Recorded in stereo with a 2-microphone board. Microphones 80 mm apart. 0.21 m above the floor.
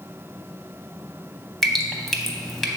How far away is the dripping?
About 0.5 m.